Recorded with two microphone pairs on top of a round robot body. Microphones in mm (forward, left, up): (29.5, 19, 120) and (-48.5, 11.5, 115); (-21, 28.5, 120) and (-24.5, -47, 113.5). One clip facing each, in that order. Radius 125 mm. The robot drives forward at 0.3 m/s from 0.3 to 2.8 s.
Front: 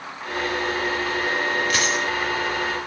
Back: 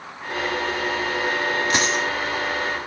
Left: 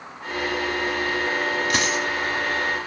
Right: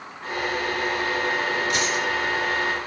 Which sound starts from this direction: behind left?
A dropped coin, at 1.7 s.